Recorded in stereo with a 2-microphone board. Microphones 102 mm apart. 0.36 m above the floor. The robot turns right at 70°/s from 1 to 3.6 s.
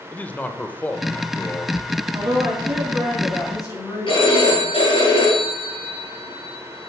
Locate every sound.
0.1 s a man speaking: 15° left (ahead or behind), 0.8 m; by 1.8 s 25° left (ahead or behind), 0.8 m
2.1 s a woman speaking: 65° right, 3.5 m; by 4.7 s 40° left, 3.5 m
4.1 s a phone ringing: 55° left (ahead or behind), 6 m